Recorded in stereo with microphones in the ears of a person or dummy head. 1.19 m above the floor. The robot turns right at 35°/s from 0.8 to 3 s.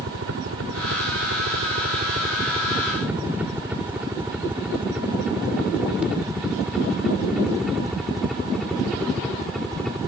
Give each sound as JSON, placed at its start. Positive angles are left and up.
{"t": 0.0, "sound": "a helicopter", "side_deg": -75}